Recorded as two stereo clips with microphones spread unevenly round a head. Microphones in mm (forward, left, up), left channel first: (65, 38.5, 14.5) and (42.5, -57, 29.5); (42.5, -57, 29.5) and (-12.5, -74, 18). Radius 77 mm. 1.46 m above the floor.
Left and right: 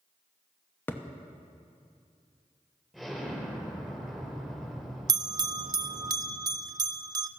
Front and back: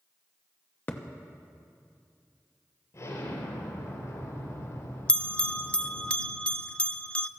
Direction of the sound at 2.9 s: 15° right.